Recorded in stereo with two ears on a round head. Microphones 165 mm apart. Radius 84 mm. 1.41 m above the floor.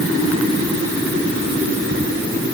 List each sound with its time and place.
Only background noise.